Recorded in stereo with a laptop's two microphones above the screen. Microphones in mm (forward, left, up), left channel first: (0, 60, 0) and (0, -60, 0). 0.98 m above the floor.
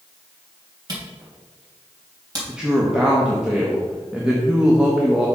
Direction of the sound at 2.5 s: 5° right (ahead or behind).